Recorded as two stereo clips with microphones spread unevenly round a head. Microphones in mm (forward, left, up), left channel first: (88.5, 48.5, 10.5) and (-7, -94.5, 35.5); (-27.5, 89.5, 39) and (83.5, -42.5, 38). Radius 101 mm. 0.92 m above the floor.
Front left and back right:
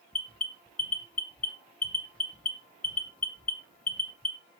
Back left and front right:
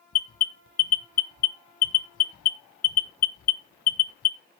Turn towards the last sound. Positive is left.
turn(degrees=130)